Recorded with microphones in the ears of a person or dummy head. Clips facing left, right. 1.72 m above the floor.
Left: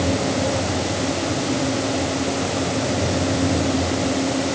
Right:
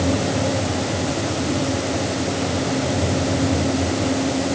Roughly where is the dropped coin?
I don't hear a dropped coin.